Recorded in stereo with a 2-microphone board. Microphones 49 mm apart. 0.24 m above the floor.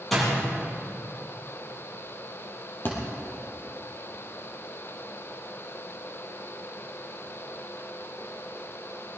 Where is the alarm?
I don't hear an alarm.